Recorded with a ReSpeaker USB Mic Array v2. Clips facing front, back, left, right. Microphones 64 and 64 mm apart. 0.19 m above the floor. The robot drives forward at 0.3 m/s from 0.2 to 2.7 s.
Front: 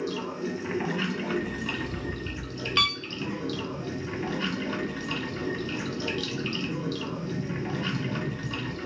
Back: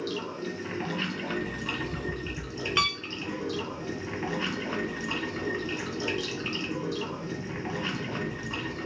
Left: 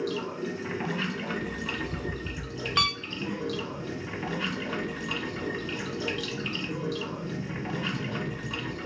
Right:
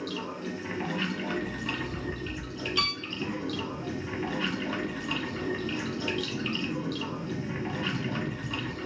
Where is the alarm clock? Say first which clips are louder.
Front 1 dB, even; 80° left, 1.1 m; by 2.9 s 100° left, 1.1 m.